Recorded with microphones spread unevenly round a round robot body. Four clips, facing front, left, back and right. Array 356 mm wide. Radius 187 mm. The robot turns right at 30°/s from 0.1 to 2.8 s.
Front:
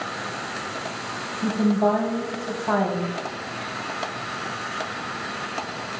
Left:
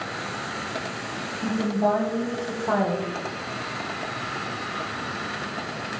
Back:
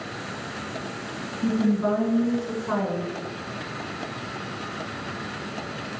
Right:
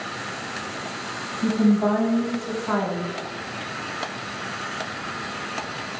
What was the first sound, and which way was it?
A woman speaking, 10° right.